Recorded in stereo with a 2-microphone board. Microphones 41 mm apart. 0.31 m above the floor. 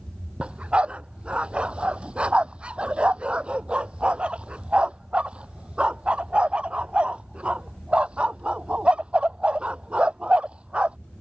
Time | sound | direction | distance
0.4 | a dog barking | 30° right (ahead or behind) | ?